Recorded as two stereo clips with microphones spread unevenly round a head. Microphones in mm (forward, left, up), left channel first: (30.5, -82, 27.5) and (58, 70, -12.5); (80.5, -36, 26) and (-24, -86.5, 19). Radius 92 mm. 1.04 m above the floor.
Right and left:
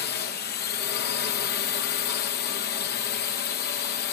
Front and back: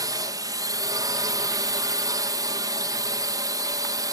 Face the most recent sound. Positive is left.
turn(degrees=-110)